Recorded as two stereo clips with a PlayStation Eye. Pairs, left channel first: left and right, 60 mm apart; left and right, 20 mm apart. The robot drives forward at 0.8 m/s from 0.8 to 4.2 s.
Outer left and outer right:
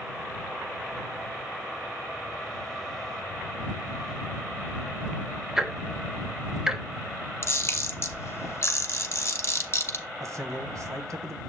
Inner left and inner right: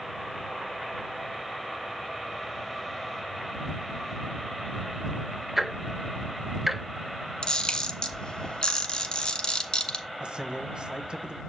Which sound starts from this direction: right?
A man speaking, at 10.2 s.